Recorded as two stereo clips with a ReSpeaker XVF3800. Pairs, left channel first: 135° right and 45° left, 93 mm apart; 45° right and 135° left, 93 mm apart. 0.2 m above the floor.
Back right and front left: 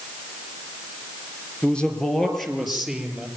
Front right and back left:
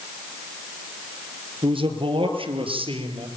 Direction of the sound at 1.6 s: 150° left.